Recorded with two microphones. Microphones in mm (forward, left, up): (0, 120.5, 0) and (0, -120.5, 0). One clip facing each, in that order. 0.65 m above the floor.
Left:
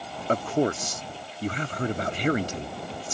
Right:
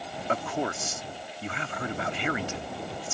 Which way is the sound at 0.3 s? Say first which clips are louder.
Left 7 dB; 40° left (ahead or behind).